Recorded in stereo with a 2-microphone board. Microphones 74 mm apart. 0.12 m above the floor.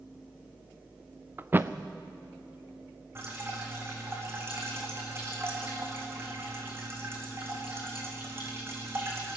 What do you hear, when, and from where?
1.4 s a thud: 25° right (ahead or behind), 0.9 m
3.1 s dripping: 35° right (ahead or behind), 4.5 m